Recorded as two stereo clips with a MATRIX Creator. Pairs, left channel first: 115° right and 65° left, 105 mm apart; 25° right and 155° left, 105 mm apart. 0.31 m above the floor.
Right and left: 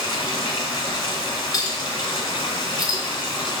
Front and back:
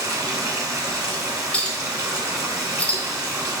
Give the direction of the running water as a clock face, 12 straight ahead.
5 o'clock.